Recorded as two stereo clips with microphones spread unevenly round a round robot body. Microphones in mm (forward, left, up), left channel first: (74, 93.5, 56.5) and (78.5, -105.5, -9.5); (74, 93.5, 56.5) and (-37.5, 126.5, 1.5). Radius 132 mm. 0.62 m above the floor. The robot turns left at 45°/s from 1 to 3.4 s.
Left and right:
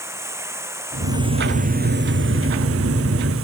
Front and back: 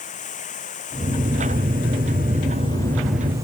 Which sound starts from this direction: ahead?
Running water, at 0.0 s.